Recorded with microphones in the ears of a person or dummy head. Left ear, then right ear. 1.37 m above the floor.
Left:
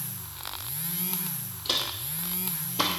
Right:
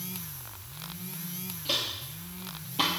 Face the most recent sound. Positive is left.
turn(degrees=-15)  # may be behind; listen again after turning